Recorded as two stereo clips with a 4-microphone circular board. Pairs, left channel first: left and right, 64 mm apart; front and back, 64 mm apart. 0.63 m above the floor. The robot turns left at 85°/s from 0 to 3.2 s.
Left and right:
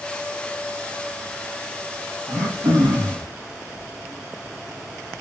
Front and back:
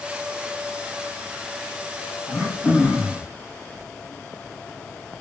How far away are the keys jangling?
I don't hear keys jangling.